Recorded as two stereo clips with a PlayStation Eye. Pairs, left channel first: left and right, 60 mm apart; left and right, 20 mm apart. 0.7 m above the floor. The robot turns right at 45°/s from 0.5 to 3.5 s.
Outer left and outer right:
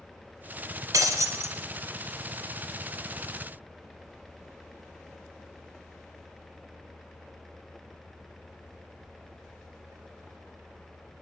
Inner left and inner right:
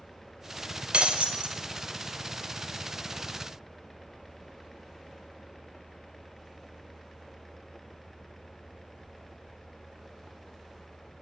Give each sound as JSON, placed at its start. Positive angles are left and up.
{"t": 0.9, "sound": "breaking glass", "side_deg": -65, "distance_m": 0.7}